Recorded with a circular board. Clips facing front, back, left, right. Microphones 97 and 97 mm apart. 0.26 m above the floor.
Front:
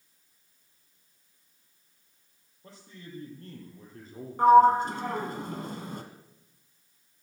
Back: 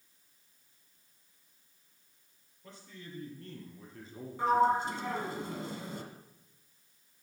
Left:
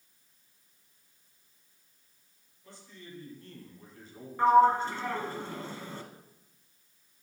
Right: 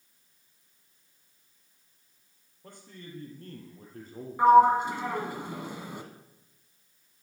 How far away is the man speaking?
About 5.5 m.